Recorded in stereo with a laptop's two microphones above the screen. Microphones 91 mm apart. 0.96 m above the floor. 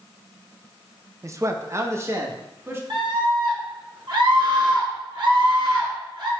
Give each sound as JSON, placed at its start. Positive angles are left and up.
{"t": 1.2, "sound": "a man speaking", "side_deg": -30, "distance_m": 0.7}
{"t": 2.9, "sound": "a scream", "side_deg": -55, "distance_m": 3.0}